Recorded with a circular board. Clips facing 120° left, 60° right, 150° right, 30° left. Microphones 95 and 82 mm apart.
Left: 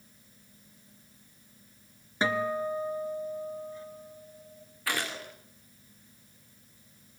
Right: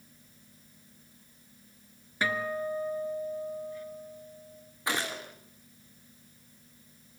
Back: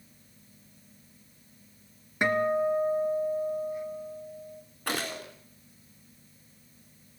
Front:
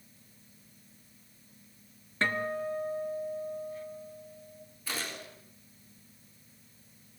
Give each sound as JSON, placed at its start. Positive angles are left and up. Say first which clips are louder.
{"t": 2.2, "sound": "a guitar", "louder": "left 3 dB, back 7 dB", "azimuth_deg": 150, "distance_m": 1.6}
{"t": 4.9, "sound": "a gunshot", "louder": "right 1 dB, back 6 dB", "azimuth_deg": -130, "distance_m": 3.5}